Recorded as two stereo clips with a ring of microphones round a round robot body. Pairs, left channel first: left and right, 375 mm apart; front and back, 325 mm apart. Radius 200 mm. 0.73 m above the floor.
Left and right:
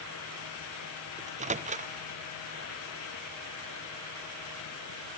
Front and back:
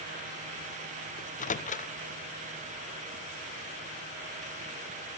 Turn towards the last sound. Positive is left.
turn(degrees=-40)